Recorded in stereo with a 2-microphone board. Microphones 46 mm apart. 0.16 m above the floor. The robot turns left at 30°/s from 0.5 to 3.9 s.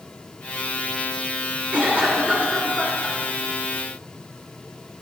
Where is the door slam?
I don't hear a door slam.